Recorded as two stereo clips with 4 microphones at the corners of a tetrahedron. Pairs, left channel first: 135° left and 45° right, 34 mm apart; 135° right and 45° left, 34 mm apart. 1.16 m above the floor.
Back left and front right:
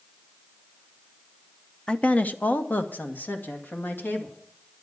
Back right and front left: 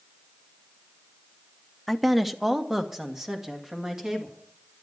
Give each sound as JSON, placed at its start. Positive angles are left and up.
{"t": 1.9, "sound": "a woman speaking", "azimuth_deg": 150, "distance_m": 0.7}